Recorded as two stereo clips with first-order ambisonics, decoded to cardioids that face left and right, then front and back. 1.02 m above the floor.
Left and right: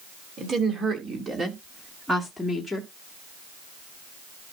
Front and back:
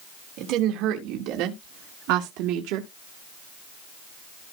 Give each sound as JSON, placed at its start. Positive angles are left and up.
{"t": 0.4, "sound": "a woman speaking", "azimuth_deg": -150, "distance_m": 2.5}